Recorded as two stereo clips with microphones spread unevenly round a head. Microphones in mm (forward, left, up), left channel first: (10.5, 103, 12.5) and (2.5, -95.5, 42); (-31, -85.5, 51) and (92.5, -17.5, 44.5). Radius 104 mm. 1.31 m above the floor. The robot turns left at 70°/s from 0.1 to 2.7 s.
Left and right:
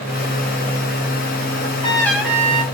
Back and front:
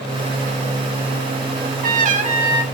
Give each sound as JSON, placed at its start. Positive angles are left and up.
{"t": 1.6, "sound": "a trumpet", "azimuth_deg": 40, "distance_m": 1.9}